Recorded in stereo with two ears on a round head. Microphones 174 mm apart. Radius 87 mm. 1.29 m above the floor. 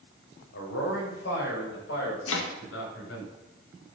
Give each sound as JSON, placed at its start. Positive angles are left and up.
{"t": 0.5, "sound": "a man speaking", "side_deg": 60, "distance_m": 7.0}
{"t": 2.3, "sound": "chopping", "side_deg": 75, "distance_m": 2.0}